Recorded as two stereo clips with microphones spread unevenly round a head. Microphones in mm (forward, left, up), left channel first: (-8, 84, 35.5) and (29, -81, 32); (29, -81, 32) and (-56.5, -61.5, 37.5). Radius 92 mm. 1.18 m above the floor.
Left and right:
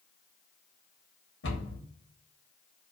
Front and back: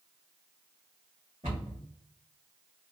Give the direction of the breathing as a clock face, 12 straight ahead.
No breathing in this recording.